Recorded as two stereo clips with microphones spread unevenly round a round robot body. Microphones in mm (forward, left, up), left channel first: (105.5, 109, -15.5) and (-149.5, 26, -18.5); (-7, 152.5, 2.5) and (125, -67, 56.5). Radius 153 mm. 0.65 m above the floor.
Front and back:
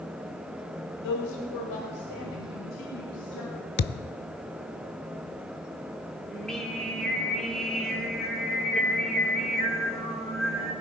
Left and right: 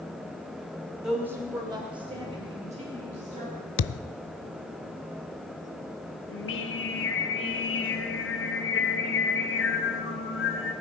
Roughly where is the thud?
Left.